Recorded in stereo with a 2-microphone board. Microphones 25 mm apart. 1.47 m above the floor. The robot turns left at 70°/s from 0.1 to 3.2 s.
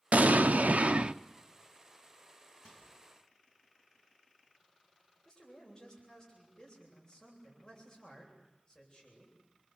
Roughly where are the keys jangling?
No keys jangling in this recording.